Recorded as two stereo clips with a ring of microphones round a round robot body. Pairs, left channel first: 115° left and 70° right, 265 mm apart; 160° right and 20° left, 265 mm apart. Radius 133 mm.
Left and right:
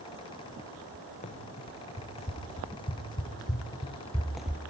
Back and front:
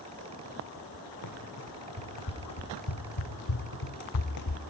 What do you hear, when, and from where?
1.2 s running footsteps: straight behind, 3.5 m; by 4.6 s 150° right, 0.9 m